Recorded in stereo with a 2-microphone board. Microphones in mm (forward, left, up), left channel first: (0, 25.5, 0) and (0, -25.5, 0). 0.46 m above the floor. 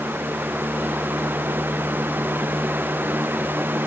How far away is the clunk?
No clunk in this recording.